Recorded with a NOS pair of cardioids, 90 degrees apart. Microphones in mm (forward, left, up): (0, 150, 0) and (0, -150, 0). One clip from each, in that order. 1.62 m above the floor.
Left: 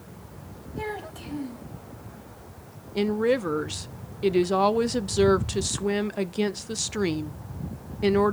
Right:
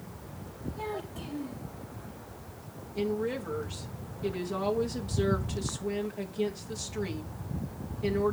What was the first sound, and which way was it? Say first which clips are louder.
A child speaking: left 4 dB; 45° left.